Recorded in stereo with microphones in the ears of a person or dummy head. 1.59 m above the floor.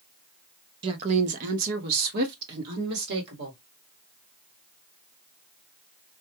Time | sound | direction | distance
0.8 | a woman speaking | 25° right (ahead or behind) | 0.5 m